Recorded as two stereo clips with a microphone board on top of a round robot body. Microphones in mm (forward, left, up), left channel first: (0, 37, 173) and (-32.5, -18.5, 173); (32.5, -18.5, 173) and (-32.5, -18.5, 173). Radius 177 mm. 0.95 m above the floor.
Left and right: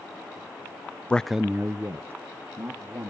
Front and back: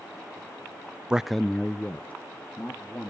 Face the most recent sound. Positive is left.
turn(degrees=-70)